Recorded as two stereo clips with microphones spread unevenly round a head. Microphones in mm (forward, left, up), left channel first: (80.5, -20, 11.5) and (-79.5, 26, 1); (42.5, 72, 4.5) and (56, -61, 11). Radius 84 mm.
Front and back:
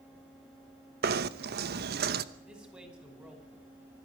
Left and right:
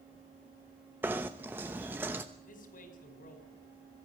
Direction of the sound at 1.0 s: 165° right.